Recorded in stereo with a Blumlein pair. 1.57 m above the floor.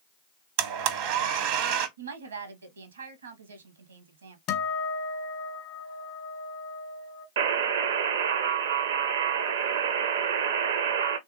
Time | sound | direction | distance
0.6 | a blender | 45° right | 0.6 m
2.0 | a woman speaking | 70° right | 0.9 m
4.5 | a guitar | 35° left | 0.8 m
7.4 | a buzzer | 60° right | 0.5 m